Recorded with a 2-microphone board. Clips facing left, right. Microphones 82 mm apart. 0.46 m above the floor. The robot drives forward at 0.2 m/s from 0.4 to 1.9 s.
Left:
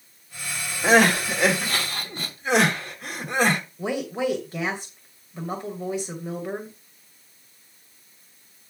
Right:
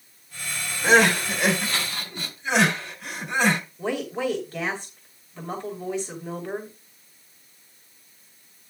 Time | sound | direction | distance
0.8 | crying | 45° left (ahead or behind) | 2.5 m
3.8 | a woman speaking | 10° left (ahead or behind) | 2.5 m